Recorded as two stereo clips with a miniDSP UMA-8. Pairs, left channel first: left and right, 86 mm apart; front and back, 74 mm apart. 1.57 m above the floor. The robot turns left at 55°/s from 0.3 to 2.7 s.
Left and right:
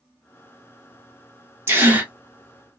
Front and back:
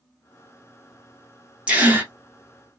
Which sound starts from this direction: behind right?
A gasp, at 1.7 s.